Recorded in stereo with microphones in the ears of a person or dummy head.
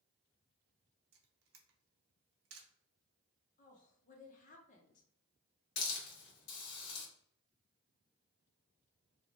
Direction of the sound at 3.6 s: 40° left (ahead or behind).